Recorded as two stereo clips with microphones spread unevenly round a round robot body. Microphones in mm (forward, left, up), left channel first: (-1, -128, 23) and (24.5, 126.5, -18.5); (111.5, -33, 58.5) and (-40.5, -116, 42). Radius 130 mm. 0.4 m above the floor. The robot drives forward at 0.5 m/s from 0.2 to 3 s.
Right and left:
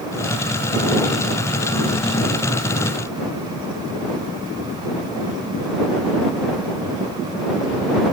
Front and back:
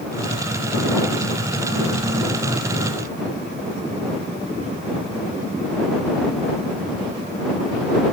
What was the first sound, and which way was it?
Only background noise.